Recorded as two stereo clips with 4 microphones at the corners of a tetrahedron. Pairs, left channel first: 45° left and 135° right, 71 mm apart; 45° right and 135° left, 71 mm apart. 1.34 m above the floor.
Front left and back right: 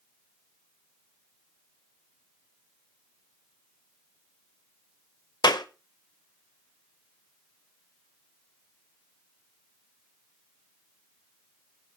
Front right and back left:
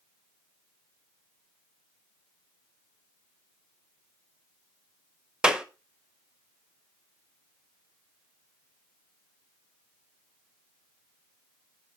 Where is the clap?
55° left, 1.0 m.